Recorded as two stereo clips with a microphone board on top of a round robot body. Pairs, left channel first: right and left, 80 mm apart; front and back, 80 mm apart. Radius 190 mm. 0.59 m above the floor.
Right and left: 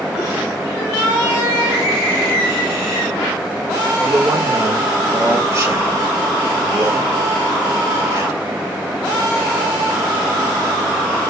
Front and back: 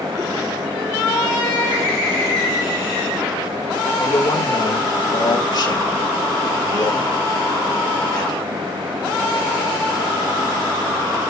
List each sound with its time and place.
4.0 s a man speaking: 35° left, 3 m